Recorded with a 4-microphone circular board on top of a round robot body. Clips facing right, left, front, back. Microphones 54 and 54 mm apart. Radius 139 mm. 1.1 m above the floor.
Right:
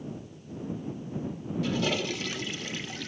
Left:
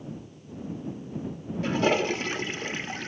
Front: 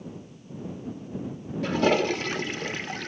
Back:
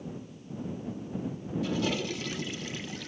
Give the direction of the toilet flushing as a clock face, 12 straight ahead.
11 o'clock.